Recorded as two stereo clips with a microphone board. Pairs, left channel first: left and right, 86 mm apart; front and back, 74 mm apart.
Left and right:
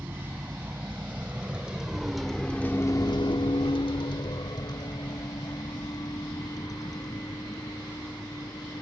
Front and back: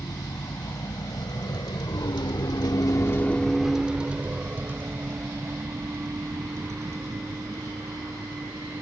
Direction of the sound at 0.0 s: 25° right.